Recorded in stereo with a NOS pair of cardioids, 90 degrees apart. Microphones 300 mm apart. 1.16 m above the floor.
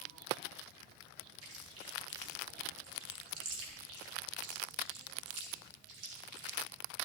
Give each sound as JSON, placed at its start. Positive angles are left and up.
{"t": 1.4, "sound": "chewing", "azimuth_deg": -55, "distance_m": 6.5}